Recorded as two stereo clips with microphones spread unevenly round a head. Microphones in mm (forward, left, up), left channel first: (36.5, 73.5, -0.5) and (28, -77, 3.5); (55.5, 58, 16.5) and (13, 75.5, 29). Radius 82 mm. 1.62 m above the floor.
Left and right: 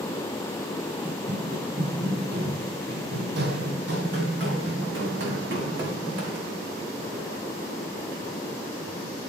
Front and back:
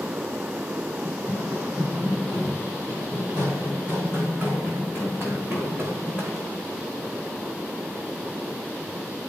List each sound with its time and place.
1.1 s running footsteps: 85° right, 2 m; by 6.6 s 105° right, 6.5 m